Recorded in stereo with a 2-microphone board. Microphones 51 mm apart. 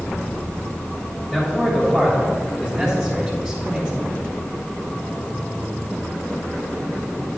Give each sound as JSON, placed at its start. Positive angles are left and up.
{"t": 1.3, "sound": "a man speaking", "side_deg": -15, "distance_m": 2.5}